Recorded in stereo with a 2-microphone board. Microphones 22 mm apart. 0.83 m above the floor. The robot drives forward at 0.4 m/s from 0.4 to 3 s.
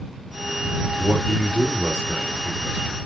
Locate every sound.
0.9 s a man speaking: 75° left (ahead or behind), 2.5 m; by 3.0 s 65° left (ahead or behind), 3 m